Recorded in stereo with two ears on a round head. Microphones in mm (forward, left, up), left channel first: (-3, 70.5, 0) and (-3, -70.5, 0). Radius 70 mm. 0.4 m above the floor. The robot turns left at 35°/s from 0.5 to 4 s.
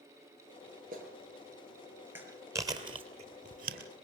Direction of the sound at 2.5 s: 20° right (ahead or behind).